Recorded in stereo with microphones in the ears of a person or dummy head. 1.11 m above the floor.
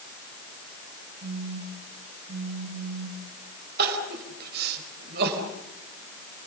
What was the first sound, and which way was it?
A phone buzzing, 50° right (ahead or behind).